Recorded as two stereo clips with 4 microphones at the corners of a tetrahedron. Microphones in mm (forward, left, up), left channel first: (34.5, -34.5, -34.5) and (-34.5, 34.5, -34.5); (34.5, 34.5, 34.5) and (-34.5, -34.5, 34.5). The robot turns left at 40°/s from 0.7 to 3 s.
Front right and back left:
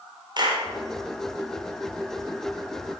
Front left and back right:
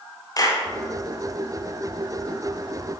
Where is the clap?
95° left, 1.7 m.